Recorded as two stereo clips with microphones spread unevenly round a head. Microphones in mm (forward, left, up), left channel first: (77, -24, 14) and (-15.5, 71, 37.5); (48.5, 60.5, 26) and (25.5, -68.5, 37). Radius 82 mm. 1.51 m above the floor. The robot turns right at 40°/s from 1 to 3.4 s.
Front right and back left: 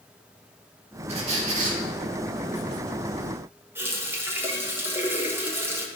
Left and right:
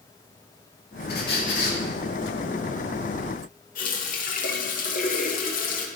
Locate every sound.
1.1 s a squeak: 105° left, 1.7 m; by 1.8 s 135° left, 1.7 m
3.8 s a running tap: 65° left, 1.5 m